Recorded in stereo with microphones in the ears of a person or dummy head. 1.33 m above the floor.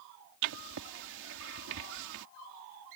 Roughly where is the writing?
Right.